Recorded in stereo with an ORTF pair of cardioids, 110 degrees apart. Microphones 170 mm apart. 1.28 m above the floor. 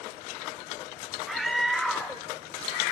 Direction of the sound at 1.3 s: Straight ahead.